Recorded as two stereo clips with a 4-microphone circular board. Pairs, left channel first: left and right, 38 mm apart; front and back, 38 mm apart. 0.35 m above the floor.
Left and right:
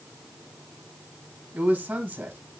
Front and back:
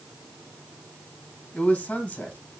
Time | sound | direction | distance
1.5 | a man speaking | 55° right | 2.5 m